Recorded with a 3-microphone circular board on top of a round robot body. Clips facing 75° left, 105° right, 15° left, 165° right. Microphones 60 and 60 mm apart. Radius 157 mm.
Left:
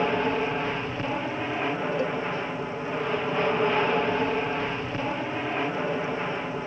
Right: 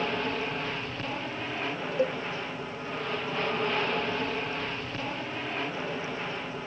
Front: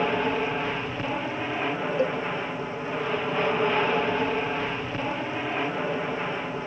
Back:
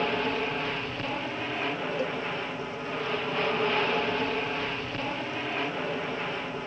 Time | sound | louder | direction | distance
0.0 | an aircraft | left 6 dB, front 3 dB | 60° left | ?
2.0 | a cowbell | even, front 8 dB | 45° right | ?